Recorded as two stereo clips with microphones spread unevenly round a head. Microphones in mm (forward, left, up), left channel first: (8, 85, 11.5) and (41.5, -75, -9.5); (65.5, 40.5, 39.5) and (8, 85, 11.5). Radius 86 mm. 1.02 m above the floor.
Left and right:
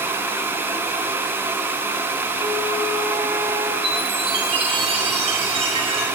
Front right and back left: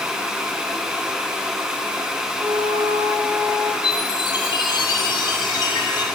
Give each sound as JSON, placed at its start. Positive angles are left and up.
{"t": 2.4, "sound": "a flute", "azimuth_deg": -155, "distance_m": 3.0}
{"t": 3.8, "sound": "a chime", "azimuth_deg": -25, "distance_m": 9.0}